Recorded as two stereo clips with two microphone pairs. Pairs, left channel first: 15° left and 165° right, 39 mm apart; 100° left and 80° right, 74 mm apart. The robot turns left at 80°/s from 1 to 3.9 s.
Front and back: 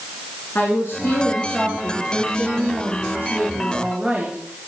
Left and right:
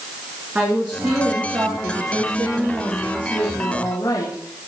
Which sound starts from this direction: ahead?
A woman speaking, at 0.6 s.